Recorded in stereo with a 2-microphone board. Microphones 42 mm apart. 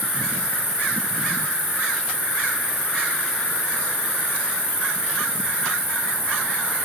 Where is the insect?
70° right (ahead or behind), 9 m.